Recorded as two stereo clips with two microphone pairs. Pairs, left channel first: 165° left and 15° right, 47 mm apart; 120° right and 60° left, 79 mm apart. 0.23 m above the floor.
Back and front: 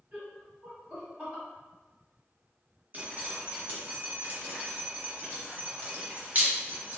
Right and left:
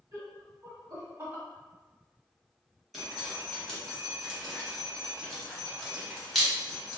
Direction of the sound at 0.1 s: 30° left.